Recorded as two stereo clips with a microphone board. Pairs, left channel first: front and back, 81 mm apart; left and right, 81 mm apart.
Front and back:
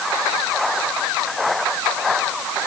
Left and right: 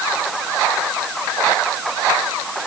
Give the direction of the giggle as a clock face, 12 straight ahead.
I don't hear a giggle.